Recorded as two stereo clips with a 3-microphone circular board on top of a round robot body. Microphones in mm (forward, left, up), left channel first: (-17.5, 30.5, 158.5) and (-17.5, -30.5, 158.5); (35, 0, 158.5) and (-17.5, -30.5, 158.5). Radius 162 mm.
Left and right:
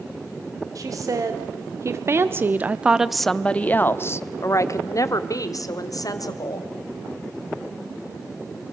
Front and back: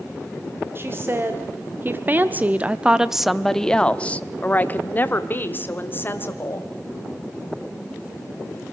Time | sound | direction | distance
0.8 | a woman speaking | 100° right | 2.0 m